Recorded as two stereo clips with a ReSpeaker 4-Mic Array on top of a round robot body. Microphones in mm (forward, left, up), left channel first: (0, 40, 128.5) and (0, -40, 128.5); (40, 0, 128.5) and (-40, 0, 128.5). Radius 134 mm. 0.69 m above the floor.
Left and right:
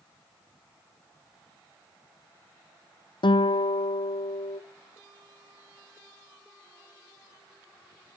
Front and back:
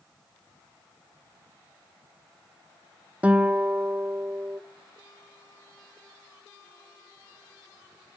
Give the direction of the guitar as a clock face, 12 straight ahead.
8 o'clock.